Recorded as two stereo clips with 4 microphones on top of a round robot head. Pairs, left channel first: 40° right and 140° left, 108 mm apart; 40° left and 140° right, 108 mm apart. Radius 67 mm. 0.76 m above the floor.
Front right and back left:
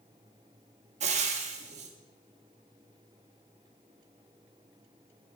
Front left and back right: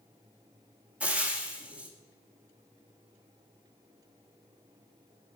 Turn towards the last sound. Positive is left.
turn(degrees=140)